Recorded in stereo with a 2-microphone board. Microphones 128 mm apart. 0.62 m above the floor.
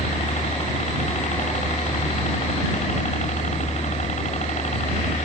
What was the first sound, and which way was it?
A helicopter, 65° left (ahead or behind).